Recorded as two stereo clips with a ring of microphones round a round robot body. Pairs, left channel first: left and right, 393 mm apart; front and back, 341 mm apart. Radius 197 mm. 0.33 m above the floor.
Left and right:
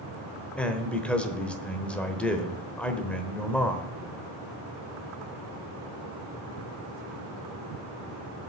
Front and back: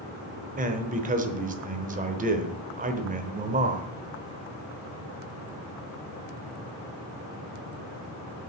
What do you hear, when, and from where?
0.6 s a man speaking: 175° left, 0.9 m